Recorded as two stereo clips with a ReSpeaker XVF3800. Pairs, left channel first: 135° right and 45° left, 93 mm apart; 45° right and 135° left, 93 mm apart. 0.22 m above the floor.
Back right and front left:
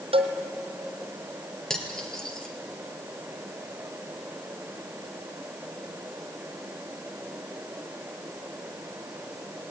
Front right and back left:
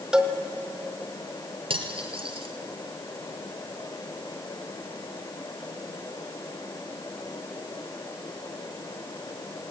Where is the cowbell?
55° left, 1.7 m.